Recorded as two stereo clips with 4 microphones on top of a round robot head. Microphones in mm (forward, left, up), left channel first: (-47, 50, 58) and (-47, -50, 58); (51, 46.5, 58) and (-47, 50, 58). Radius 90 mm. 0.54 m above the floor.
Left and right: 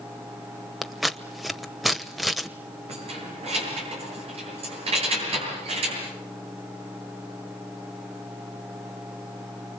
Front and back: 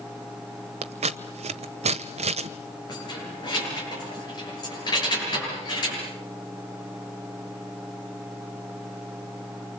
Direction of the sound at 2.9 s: 55° right.